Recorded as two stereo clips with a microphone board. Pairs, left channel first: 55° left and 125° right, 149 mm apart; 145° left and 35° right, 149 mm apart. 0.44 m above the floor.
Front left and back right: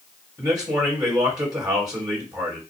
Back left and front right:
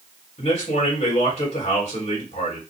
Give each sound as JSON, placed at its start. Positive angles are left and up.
{"t": 0.4, "sound": "a man speaking", "azimuth_deg": 175, "distance_m": 2.5}